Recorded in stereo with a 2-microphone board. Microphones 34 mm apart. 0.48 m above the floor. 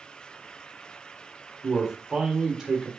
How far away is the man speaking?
About 1.4 m.